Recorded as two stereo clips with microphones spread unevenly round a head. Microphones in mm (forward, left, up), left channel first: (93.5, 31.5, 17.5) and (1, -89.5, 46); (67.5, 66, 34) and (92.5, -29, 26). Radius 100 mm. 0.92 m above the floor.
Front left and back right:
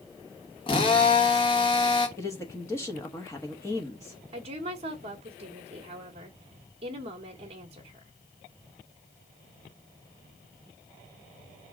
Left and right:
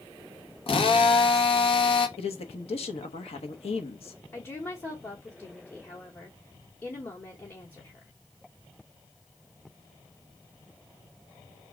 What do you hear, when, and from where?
0.7 s a drill: 100° left, 1.7 m
2.2 s a man speaking: 125° left, 1.1 m
4.3 s a woman speaking: 175° left, 1.2 m